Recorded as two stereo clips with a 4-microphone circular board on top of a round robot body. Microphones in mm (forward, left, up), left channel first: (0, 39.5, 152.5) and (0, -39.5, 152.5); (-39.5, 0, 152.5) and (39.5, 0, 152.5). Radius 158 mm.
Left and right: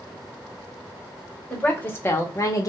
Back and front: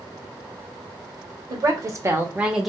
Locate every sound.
1.5 s a woman speaking: 20° left, 1.2 m; by 2.7 s 90° left, 0.8 m